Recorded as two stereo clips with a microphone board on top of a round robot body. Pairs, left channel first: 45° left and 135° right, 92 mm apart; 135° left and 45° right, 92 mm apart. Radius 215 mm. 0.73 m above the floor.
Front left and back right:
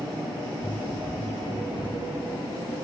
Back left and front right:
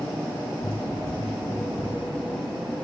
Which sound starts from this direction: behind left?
Running footsteps, at 0.6 s.